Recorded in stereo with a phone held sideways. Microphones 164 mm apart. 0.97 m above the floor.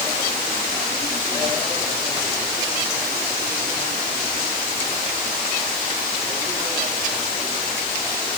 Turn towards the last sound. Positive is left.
No sound to turn to.